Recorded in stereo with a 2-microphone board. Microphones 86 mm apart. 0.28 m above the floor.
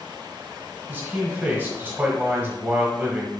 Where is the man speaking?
20° right (ahead or behind), 1.0 m.